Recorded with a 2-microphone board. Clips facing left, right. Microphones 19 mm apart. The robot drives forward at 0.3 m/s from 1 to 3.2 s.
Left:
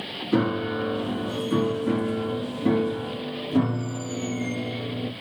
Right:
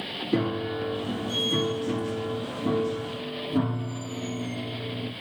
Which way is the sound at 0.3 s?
60° left (ahead or behind).